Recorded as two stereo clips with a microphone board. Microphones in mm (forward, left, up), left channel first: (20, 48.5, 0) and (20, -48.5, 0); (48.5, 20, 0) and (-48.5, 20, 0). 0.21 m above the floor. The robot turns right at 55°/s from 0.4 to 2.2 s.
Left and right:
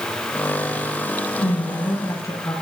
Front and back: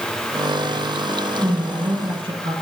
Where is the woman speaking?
105° left, 6.5 m; by 2.5 s 150° left, 6.5 m.